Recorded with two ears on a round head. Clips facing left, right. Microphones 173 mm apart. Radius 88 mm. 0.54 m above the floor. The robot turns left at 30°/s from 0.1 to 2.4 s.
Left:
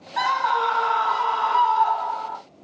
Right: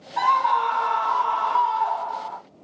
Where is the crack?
No crack in this recording.